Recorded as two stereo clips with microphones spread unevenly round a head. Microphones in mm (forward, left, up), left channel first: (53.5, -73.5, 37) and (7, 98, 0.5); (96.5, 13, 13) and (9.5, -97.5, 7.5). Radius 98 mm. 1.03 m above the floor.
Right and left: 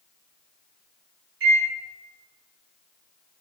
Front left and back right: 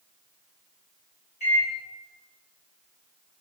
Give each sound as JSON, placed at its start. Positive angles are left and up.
{"t": 1.4, "sound": "a microwave", "azimuth_deg": 110, "distance_m": 1.8}